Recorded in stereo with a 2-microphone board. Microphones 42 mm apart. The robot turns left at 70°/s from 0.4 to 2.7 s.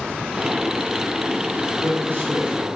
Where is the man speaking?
60° right, 2.5 m; by 2.7 s 135° right, 2.5 m.